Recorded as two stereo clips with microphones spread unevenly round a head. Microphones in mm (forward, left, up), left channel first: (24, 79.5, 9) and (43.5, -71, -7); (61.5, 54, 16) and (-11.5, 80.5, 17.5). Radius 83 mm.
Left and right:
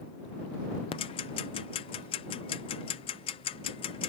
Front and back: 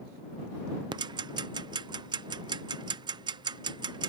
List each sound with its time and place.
0.9 s ticking: 155° left